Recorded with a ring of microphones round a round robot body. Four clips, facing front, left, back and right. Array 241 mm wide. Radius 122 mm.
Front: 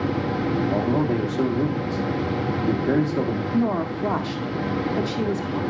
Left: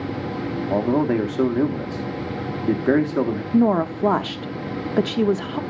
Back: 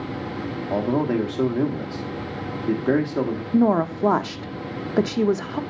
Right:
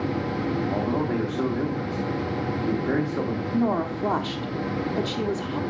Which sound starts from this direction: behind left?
A woman speaking, at 3.5 s.